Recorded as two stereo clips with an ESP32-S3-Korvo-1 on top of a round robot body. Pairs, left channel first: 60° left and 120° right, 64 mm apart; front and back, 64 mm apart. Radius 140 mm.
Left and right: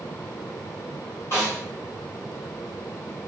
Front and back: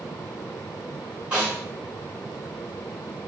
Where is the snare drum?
110° left, 2 m.